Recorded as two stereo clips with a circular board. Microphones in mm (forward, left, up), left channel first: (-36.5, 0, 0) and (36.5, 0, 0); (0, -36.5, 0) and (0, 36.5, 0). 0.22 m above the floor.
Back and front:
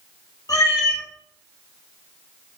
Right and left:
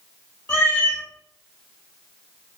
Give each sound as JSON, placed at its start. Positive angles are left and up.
{"t": 0.5, "sound": "a cat meowing", "azimuth_deg": -150, "distance_m": 1.1}